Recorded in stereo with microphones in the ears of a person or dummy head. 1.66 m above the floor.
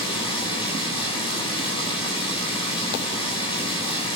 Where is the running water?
30° left (ahead or behind), 6 m.